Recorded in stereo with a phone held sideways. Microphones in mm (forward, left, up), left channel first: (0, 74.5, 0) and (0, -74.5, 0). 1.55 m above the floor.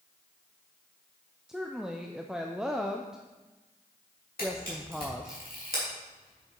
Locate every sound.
1.5 s a woman speaking: 5° right (ahead or behind), 0.5 m
4.4 s a camera shutter: 75° left (ahead or behind), 3 m